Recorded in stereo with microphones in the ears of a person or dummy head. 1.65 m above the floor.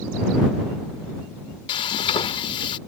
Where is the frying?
30° left (ahead or behind).